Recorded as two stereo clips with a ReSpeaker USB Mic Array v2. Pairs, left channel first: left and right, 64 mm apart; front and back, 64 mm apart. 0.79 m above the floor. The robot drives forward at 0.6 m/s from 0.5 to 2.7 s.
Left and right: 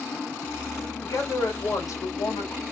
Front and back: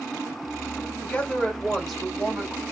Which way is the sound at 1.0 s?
65° left.